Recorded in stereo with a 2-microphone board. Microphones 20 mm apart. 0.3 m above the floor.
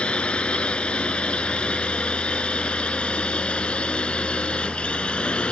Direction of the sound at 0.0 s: 70° left (ahead or behind).